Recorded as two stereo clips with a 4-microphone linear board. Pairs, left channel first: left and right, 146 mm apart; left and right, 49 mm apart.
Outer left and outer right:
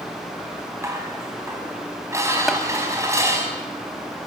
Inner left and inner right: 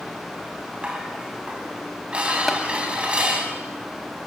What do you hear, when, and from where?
0.8 s dishes clattering: 20° right (ahead or behind), 4.5 m
2.5 s tapping: centre (ahead or behind), 2 m